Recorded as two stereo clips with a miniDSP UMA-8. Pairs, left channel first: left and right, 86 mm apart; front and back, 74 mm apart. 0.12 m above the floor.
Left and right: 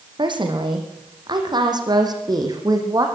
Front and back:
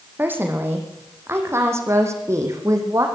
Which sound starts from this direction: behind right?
A woman speaking, at 0.2 s.